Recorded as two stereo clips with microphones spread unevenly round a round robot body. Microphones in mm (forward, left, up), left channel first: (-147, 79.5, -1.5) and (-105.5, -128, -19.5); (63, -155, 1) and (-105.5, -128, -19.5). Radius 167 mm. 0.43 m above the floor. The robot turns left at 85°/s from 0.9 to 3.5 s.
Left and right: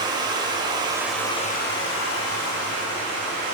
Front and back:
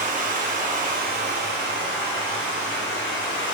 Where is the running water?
150° right, 0.7 m; by 3.5 s 10° right, 0.7 m.